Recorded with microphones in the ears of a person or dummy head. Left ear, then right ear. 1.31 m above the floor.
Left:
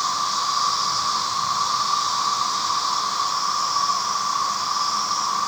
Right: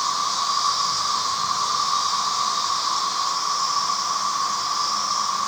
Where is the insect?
5° right (ahead or behind), 1.5 m.